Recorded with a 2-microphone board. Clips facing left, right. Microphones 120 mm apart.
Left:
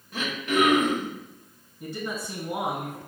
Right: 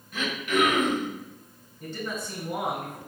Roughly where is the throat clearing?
Left.